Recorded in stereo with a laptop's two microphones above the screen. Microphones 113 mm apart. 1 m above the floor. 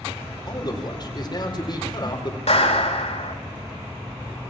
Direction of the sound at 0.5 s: 40° left (ahead or behind).